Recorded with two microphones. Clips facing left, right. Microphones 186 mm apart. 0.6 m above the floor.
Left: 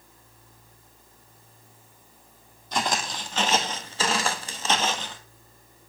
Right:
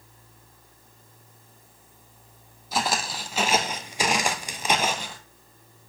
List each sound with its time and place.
2.7 s footsteps: 5° right (ahead or behind), 1.2 m; by 5.2 s 10° right (ahead or behind), 0.9 m